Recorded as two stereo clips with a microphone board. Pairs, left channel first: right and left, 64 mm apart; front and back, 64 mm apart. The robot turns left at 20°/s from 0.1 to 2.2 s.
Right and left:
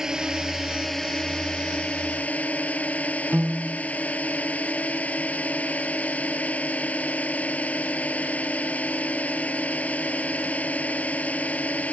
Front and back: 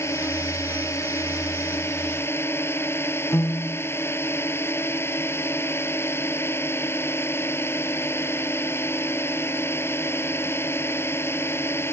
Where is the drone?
10° left; by 11.9 s 30° right.